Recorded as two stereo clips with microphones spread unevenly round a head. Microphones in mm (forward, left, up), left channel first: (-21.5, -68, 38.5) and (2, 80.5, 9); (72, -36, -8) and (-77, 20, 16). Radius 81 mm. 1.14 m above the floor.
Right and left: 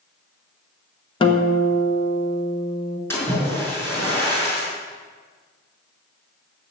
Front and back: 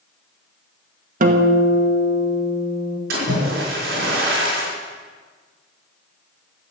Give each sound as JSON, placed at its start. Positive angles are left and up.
{"t": 1.2, "sound": "a guitar", "azimuth_deg": -160, "distance_m": 1.4}
{"t": 3.1, "sound": "a splash", "azimuth_deg": -170, "distance_m": 5.5}